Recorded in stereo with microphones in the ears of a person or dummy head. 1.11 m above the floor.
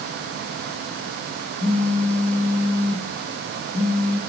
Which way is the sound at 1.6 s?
10° left (ahead or behind).